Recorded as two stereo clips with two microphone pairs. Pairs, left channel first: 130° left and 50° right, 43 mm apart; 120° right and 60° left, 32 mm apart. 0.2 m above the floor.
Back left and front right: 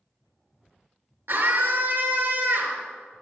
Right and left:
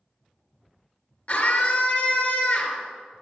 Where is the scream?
65° right, 3 m.